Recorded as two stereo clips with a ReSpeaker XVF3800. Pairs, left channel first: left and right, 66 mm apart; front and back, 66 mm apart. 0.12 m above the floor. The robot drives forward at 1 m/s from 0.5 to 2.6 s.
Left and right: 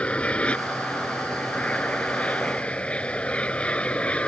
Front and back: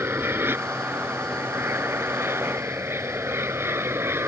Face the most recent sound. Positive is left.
turn(degrees=155)